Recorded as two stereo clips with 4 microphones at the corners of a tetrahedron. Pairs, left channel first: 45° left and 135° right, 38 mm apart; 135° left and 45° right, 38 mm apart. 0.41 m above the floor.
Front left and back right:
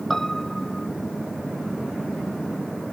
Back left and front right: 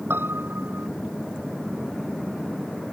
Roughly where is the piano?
Ahead right.